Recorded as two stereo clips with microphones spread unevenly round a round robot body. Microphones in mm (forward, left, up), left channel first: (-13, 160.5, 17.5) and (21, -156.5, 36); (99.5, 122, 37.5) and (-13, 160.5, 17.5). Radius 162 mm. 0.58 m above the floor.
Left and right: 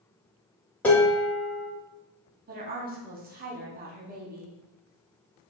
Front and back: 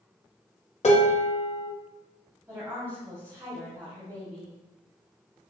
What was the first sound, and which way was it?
Dishes clattering, 10° left.